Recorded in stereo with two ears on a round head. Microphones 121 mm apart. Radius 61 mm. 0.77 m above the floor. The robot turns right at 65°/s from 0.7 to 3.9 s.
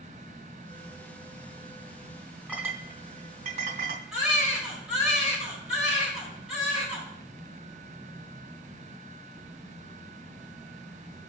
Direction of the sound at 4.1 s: 5° right (ahead or behind).